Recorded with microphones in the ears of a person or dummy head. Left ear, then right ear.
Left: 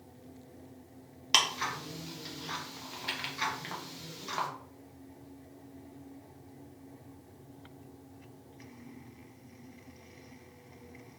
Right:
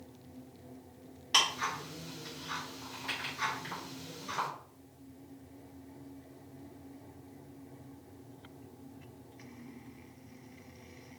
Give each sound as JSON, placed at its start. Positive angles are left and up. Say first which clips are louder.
{"t": 1.3, "sound": "ticking", "louder": "left 1 dB", "side_deg": 40, "distance_m": 1.3}